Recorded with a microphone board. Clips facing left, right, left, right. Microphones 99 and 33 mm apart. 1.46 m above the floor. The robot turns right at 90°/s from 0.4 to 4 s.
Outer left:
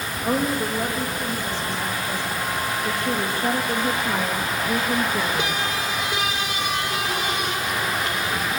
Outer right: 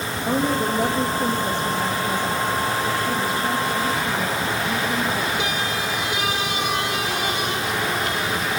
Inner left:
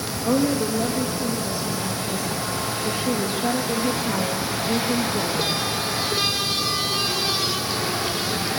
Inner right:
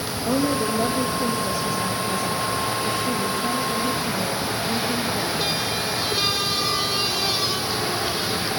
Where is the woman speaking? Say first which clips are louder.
Outer right 1 dB, inner left 1 dB; 140° left, 3 m; by 5.6 s 105° left, 3 m.